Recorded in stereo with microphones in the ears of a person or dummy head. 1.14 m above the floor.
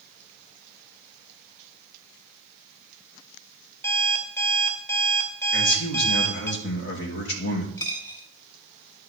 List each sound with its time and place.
3.8 s an alarm clock: 20° left (ahead or behind), 1.1 m
5.5 s a man speaking: 60° left (ahead or behind), 1.9 m
7.8 s a dropped coin: 30° left (ahead or behind), 1.8 m